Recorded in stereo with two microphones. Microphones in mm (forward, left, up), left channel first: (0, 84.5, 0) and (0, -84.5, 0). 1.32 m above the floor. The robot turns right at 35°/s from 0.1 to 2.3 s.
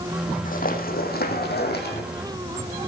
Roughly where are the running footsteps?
Left.